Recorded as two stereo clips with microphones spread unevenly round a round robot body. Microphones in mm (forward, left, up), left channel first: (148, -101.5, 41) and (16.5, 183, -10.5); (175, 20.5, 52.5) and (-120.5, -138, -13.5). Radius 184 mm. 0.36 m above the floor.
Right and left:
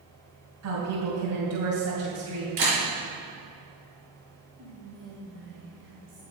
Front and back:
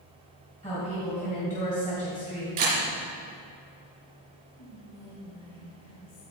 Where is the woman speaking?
100° left, 2.5 m.